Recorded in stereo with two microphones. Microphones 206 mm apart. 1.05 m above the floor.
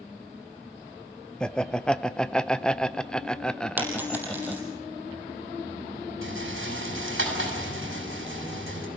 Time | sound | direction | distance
1.4 | laughter | 5° left (ahead or behind) | 0.6 m
3.8 | a dropped coin | 10° right (ahead or behind) | 4.5 m
6.2 | a rattle | 75° right (ahead or behind) | 6.5 m